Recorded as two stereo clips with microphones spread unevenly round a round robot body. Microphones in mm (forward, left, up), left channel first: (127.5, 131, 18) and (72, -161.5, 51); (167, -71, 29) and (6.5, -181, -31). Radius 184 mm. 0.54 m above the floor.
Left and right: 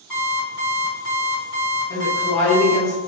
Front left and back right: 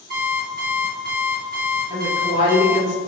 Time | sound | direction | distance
0.1 | an alarm clock | 175° left | 0.8 m
1.9 | a woman speaking | 95° left | 0.7 m